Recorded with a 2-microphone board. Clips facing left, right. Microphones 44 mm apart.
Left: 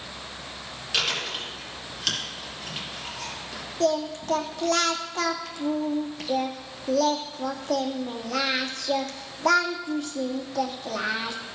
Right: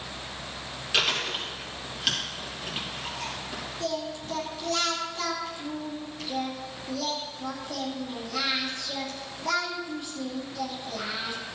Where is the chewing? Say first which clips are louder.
Right 1 dB; 10° right (ahead or behind), 4.5 m.